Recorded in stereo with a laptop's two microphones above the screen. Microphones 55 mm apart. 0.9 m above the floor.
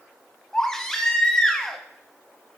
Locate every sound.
0.5 s a baby crying: 10° left (ahead or behind), 0.9 m